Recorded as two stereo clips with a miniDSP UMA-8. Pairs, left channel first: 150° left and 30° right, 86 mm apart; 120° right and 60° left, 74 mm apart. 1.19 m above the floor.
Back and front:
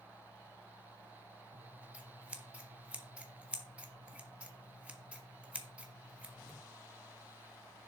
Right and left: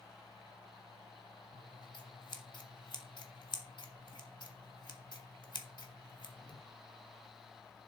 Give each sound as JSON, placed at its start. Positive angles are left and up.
{"t": 1.5, "sound": "scissors", "azimuth_deg": -105, "distance_m": 1.7}